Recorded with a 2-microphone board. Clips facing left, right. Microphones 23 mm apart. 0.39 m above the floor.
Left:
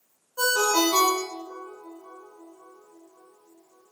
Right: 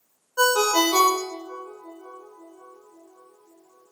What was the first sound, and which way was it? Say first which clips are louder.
A ringtone: right 3 dB; 50° right (ahead or behind).